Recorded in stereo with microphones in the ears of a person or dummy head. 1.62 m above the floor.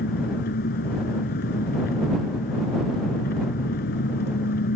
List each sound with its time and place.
0.0 s an engine running: 50° left (ahead or behind)